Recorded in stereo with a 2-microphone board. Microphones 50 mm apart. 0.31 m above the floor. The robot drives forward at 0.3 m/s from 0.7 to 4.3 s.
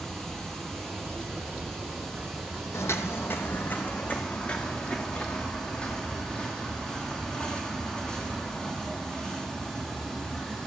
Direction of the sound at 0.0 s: 10° left (ahead or behind).